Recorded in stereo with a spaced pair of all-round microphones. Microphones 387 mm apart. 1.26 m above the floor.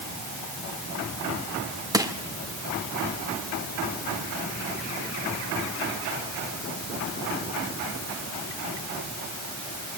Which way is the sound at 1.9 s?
10° right (ahead or behind).